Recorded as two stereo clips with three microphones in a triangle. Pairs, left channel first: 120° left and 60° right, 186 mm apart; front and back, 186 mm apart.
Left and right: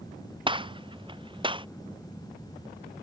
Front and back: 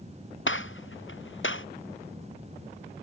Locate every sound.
0.5 s a gunshot: 5° left